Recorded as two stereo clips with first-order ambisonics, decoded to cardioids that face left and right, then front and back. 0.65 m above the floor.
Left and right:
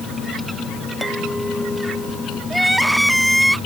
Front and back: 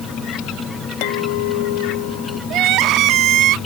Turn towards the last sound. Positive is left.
turn(degrees=180)